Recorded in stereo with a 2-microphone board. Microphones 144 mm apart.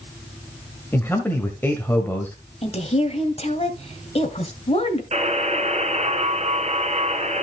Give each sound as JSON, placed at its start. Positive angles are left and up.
{"t": 0.9, "sound": "a man speaking", "side_deg": 15, "distance_m": 1.7}
{"t": 2.6, "sound": "a woman speaking", "side_deg": 45, "distance_m": 1.9}
{"t": 5.1, "sound": "a buzzer", "side_deg": -45, "distance_m": 1.4}